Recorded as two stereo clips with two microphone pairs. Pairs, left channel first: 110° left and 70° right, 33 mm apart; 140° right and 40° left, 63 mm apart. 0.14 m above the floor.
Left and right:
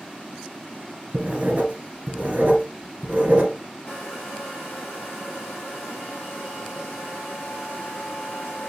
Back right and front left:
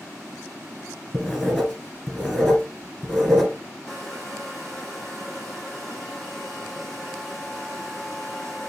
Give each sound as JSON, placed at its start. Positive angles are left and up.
{"t": 1.1, "sound": "writing", "azimuth_deg": -55, "distance_m": 1.6}
{"t": 3.9, "sound": "a hair dryer", "azimuth_deg": 140, "distance_m": 4.0}